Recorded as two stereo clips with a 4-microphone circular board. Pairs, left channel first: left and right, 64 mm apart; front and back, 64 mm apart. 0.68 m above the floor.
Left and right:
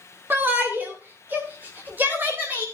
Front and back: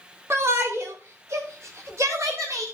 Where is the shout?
140° right, 2 m; by 2.6 s 150° right, 4 m.